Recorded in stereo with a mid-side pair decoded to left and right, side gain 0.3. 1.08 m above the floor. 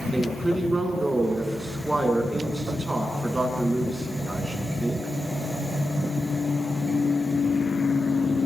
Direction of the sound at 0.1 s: 25° right.